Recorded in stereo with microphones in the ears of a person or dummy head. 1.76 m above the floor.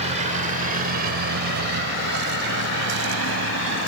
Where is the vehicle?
35° right (ahead or behind); by 3.9 s 70° right (ahead or behind).